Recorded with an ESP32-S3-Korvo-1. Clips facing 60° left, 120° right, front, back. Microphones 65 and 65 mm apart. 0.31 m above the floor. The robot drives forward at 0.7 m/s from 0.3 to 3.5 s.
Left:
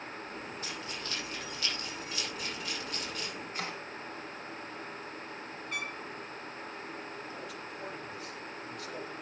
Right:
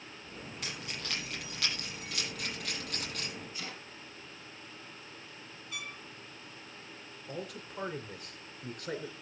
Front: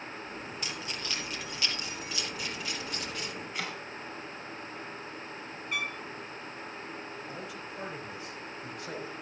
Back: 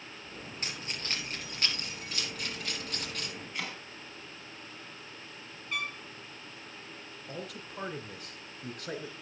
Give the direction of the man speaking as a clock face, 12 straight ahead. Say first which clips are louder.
Even, front 2 dB; 5 o'clock.